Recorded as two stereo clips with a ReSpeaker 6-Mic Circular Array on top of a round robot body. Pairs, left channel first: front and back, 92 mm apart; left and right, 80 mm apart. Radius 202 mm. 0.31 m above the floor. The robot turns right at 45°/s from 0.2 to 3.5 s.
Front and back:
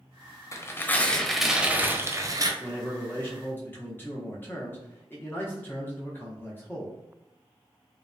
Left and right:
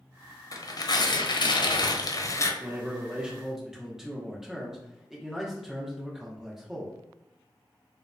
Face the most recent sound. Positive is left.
turn(degrees=-15)